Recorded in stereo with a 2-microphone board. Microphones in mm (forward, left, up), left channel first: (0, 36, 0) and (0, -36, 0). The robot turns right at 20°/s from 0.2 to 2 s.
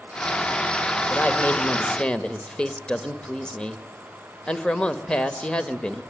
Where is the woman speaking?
30° left (ahead or behind), 1.4 m; by 6.0 s 15° left (ahead or behind), 1.4 m.